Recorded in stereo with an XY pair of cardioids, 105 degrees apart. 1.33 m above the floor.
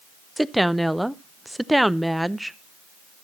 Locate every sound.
0.4 s a woman speaking: 5° right, 0.7 m